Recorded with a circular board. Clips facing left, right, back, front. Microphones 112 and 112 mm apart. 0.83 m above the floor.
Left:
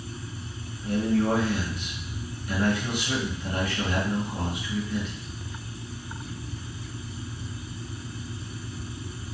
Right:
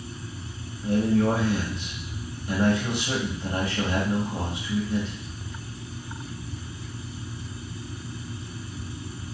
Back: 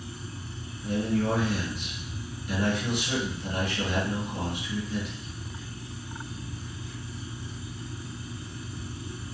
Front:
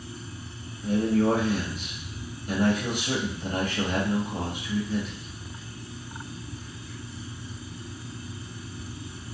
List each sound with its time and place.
0.8 s a man speaking: 35° right, 1.5 m